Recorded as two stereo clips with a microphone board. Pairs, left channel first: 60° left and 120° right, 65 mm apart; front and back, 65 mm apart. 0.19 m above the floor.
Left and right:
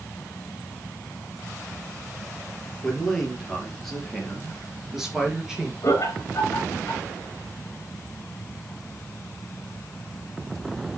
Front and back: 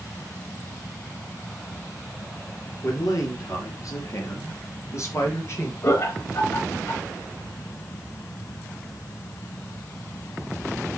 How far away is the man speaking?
About 4 m.